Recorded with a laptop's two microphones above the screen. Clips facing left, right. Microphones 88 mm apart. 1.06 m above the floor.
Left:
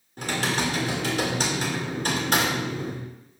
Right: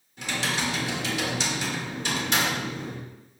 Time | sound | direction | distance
0.2 | typing on a keyboard | 45° left (ahead or behind) | 1.7 m